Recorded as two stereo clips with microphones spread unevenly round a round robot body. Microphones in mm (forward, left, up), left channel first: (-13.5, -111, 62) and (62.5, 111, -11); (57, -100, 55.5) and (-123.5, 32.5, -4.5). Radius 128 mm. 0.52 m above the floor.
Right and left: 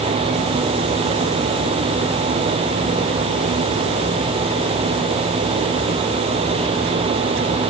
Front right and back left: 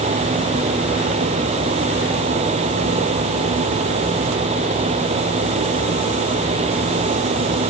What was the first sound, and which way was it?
Only background noise.